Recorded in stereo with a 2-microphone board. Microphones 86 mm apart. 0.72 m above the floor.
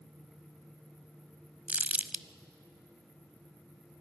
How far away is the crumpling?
About 0.5 m.